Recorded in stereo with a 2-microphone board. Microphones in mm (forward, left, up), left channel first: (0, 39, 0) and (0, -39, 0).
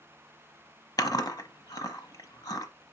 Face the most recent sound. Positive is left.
turn(degrees=55)  # may be behind; listen again after turning